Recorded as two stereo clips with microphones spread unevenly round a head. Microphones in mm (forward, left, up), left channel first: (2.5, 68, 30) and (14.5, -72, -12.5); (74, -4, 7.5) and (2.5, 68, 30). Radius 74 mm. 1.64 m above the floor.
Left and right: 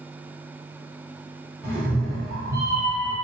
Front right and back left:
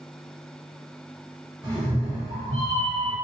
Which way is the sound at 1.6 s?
115° left.